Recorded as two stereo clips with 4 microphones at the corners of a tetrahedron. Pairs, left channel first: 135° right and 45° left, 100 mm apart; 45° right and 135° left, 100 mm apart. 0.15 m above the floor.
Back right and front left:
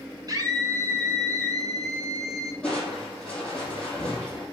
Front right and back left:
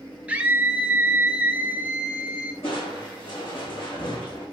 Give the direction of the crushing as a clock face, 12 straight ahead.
2 o'clock.